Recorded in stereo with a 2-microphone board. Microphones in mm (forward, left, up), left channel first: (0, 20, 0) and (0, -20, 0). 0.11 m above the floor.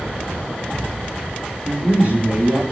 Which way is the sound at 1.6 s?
45° right (ahead or behind).